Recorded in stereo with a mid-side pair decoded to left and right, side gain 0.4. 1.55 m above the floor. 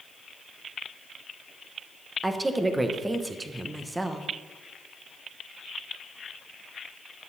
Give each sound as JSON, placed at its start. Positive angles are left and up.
{"t": 2.2, "sound": "a woman speaking", "azimuth_deg": -15, "distance_m": 1.2}